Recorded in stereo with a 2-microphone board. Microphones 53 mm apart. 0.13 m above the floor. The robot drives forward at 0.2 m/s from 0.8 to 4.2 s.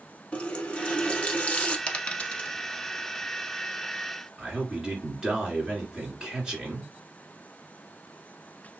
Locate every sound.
0.3 s a running tap: 20° left (ahead or behind), 0.8 m
1.9 s a dropped coin: 20° left (ahead or behind), 0.7 m
4.4 s a man speaking: 15° right (ahead or behind), 2 m